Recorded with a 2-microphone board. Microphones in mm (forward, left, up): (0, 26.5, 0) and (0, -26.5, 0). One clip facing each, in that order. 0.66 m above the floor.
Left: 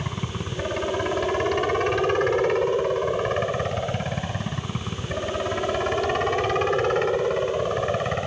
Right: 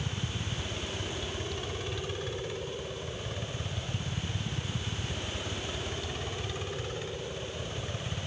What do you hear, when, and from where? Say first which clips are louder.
0.0 s a helicopter: left 6 dB; 60° left (ahead or behind)